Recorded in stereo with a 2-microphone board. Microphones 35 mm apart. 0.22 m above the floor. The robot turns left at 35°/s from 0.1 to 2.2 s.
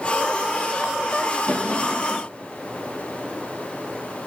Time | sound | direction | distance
1.5 | a drawer | 45° left (ahead or behind) | 3 m